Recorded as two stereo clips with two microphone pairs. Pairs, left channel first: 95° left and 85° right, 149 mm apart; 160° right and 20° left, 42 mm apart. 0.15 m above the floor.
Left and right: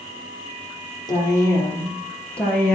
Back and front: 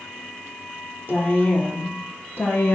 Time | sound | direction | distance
1.1 | a woman speaking | 155° left | 4 m